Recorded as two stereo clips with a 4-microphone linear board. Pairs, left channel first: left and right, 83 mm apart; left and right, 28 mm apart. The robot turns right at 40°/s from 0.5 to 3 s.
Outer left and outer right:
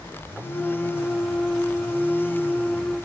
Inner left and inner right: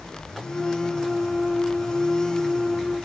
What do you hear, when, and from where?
Only background noise.